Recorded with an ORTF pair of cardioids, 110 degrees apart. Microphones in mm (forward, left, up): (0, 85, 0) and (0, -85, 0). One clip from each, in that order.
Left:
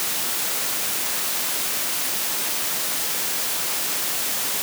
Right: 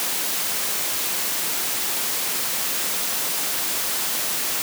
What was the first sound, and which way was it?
Only background noise.